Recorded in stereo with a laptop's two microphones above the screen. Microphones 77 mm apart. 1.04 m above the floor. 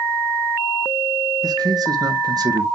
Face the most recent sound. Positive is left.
turn(degrees=-55)  # may be behind; listen again after turning